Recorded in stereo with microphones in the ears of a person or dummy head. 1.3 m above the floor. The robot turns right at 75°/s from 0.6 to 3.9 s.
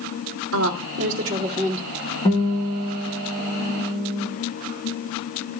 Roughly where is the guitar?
Behind left.